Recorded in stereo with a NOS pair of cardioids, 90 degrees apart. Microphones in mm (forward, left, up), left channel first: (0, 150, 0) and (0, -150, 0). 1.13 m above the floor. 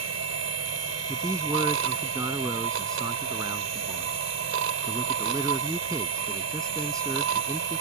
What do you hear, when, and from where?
0.0 s a machine running: 55° right
1.1 s a man speaking: 10° right